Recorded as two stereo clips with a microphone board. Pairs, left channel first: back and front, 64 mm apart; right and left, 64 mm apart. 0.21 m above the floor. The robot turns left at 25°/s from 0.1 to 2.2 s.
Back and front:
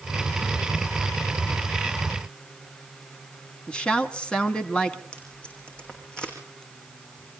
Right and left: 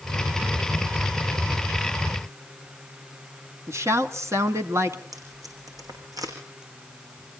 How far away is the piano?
I don't hear a piano.